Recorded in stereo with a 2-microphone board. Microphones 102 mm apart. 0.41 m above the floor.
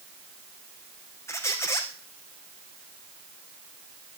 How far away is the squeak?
About 1.8 m.